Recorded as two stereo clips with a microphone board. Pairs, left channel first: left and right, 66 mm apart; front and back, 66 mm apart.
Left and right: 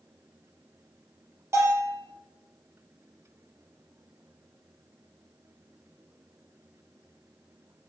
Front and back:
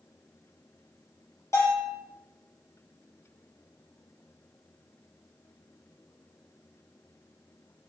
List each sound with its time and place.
1.5 s a bell: 45° right, 5.5 m